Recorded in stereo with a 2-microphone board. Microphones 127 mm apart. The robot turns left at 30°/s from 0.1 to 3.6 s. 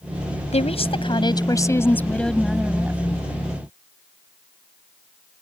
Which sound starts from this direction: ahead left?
A woman speaking, at 0.5 s.